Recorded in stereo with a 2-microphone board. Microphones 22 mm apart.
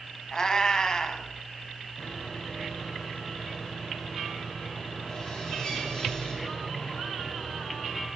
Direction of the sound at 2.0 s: 40° left (ahead or behind).